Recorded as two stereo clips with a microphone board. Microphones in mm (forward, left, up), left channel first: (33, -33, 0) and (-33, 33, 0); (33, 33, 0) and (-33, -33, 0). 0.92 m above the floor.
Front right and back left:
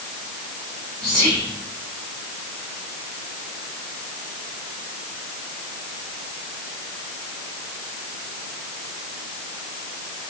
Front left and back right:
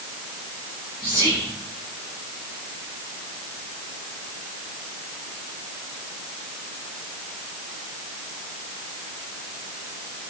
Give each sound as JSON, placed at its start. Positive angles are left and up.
{"t": 1.0, "sound": "whispering", "azimuth_deg": 35, "distance_m": 2.5}